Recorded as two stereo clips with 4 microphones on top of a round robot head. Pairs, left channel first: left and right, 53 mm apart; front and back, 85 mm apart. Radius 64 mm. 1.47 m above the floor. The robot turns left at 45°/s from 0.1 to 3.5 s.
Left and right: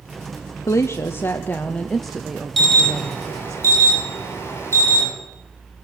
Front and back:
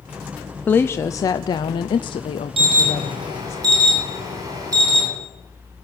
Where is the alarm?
Straight behind, 7.5 m; by 5.0 s 135° left, 7.5 m.